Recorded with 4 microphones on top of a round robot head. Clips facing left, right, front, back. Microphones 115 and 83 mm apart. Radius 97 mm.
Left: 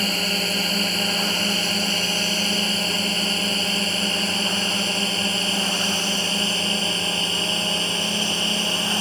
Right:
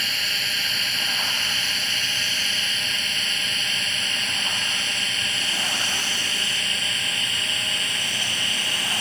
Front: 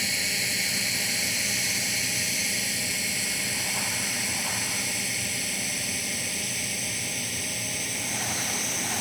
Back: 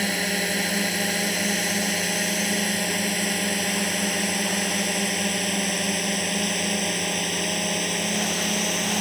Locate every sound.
0.0 s a drone: 140° left; by 9.0 s 150° left